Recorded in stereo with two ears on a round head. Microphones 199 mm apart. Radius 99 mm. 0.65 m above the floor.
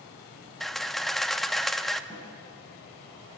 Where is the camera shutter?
Centre (ahead or behind), 0.6 m.